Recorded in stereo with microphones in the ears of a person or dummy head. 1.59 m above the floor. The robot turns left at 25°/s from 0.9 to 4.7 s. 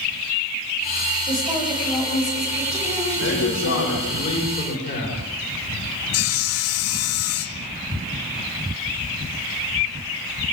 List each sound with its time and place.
1.3 s a woman speaking: 170° right, 8.5 m; by 4.2 s 120° left, 8.5 m
3.2 s a man speaking: 95° left, 5 m; by 5.2 s 60° left, 5 m
6.1 s sawing: 70° left (ahead or behind), 0.6 m